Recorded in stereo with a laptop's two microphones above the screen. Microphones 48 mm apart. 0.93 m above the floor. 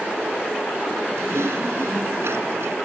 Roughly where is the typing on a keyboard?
Right.